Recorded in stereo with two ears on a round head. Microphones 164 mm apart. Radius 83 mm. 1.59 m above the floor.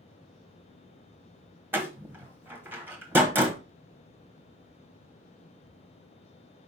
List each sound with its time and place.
1.7 s a door slam: 10° right (ahead or behind), 1.1 m